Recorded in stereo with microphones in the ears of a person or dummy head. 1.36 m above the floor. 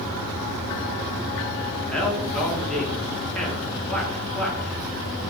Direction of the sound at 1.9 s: Centre (ahead or behind).